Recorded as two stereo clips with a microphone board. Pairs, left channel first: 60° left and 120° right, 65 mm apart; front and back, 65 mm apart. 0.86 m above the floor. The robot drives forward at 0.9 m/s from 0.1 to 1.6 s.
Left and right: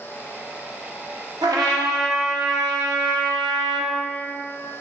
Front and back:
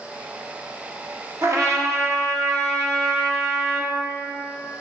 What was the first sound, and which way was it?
A trumpet, 130° right.